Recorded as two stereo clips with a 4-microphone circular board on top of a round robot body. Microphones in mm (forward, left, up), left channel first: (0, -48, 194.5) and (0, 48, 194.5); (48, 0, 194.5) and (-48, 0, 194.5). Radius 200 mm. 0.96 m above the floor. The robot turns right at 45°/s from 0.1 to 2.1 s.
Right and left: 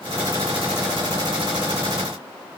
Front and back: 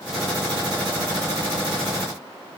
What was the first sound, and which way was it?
Only background noise.